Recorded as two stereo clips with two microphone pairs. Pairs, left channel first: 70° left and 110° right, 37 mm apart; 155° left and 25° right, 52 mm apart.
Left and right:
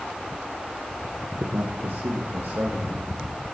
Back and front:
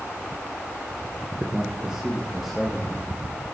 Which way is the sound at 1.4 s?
85° right.